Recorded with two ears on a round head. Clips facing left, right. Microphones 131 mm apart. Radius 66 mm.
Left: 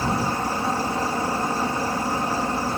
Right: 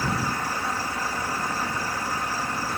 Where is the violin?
I don't hear a violin.